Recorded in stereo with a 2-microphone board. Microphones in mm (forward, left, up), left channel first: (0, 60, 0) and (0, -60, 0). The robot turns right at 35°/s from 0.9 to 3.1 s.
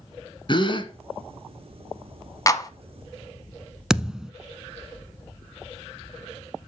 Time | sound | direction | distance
0.5 | a gasp | 45° left (ahead or behind) | 1.2 m
2.5 | a clap | 30° left (ahead or behind) | 0.9 m
3.9 | a thud | 5° right (ahead or behind) | 0.7 m